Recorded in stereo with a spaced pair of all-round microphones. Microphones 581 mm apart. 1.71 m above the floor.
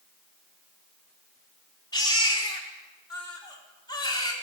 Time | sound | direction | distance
1.9 | a baby crying | 5° left (ahead or behind) | 3.5 m